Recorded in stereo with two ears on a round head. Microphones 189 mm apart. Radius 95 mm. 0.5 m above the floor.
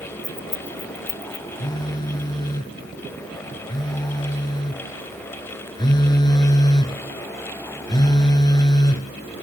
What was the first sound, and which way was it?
Keys jangling, 10° left (ahead or behind).